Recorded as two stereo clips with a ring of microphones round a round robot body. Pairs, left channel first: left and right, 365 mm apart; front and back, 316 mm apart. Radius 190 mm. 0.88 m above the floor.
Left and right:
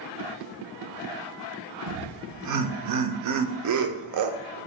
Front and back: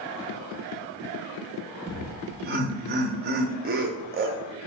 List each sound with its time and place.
1.9 s laughter: 125° right, 0.6 m